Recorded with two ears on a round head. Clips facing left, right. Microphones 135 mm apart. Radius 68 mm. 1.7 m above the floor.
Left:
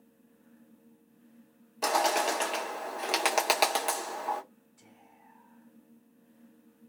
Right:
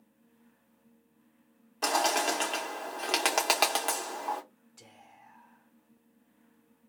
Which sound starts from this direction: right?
Whispering, at 4.8 s.